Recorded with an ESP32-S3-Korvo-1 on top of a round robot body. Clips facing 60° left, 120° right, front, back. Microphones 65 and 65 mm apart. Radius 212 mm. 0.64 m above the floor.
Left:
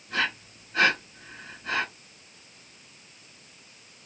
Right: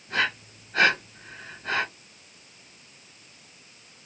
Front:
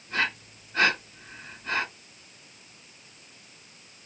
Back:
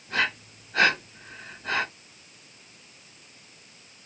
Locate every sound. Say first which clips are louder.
0.1 s breathing: right 2 dB, back 1 dB; 160° right, 1.1 m